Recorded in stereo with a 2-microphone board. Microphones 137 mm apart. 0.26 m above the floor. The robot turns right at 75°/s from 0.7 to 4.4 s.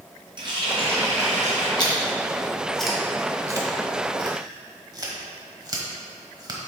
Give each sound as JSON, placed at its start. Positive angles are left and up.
{"t": 0.4, "sound": "a running tap", "azimuth_deg": -140, "distance_m": 1.9}
{"t": 1.8, "sound": "chewing", "side_deg": 35, "distance_m": 1.2}